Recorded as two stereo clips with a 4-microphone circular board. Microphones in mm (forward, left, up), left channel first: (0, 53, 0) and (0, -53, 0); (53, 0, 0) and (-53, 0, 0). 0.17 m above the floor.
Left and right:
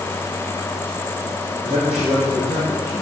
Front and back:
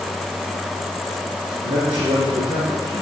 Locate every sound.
1.6 s a man speaking: 165° right, 7 m; by 3.0 s 170° right, 7.5 m